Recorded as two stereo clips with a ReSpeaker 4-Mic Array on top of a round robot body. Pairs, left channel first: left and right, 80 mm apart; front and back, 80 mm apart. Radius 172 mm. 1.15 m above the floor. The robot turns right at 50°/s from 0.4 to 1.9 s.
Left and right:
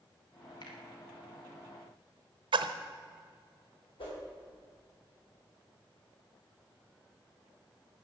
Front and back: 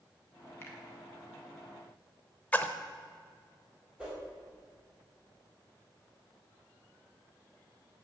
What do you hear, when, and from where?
0.6 s a finger snap: 60° left, 2.5 m; by 0.8 s 65° left, 2.5 m
2.5 s a splash: 75° right, 0.6 m
4.0 s a whoosh: 100° left, 4.5 m